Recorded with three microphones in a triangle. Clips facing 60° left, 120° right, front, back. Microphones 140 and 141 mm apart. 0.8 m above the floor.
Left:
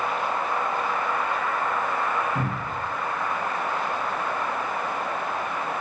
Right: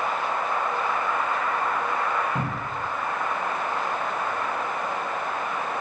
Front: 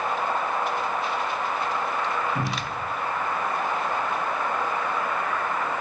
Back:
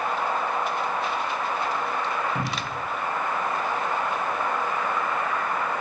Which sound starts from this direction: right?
A cupboard door, at 2.4 s.